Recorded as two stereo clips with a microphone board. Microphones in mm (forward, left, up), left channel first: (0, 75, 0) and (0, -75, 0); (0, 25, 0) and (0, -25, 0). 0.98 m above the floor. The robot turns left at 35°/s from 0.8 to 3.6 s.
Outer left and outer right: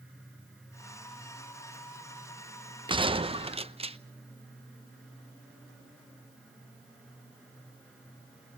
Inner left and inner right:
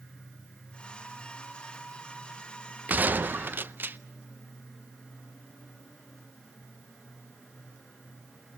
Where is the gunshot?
30° right (ahead or behind), 0.6 m; by 4.0 s 40° right (ahead or behind), 0.6 m.